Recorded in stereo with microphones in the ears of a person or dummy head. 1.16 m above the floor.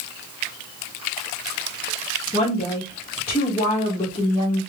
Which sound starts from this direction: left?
A woman speaking, at 2.3 s.